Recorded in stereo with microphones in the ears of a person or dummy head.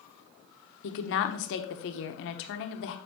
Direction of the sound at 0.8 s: 65° left (ahead or behind).